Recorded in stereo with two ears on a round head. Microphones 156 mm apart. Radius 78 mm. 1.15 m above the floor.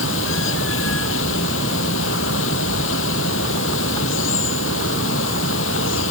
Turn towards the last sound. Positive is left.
turn(degrees=85)